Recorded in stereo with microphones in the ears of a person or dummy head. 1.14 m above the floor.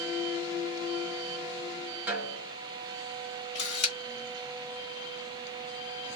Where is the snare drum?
10° right (ahead or behind), 1.6 m.